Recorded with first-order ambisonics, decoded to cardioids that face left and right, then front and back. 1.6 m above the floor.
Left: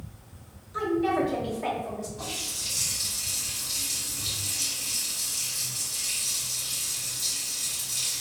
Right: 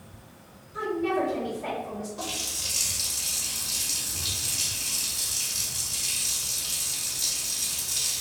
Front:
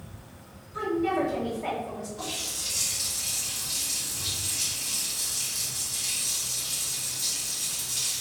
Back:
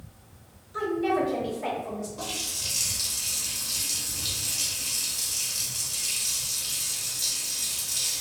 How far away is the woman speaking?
About 1.2 m.